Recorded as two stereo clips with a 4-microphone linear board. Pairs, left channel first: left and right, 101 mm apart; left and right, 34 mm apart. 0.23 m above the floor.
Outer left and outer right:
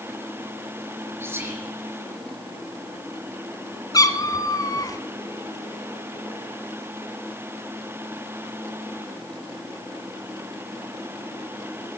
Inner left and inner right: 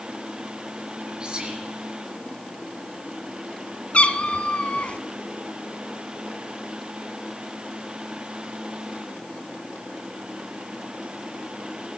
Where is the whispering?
25° right (ahead or behind), 4 m.